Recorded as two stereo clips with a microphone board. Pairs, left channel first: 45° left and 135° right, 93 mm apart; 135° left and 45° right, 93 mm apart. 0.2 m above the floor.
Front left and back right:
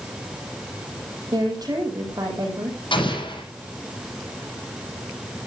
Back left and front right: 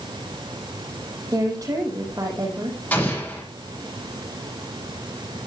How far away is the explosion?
About 8 m.